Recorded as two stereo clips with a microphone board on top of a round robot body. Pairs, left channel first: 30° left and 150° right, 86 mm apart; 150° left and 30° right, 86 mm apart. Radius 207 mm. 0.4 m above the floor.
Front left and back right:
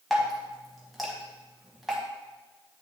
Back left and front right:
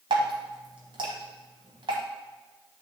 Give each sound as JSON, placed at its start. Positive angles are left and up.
{"t": 0.1, "sound": "dripping", "azimuth_deg": -60, "distance_m": 0.9}